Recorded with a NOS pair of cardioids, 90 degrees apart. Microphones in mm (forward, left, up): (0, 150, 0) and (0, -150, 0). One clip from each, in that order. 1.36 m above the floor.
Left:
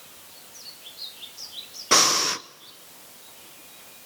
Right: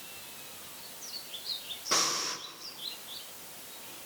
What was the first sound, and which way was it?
Breathing, 50° left.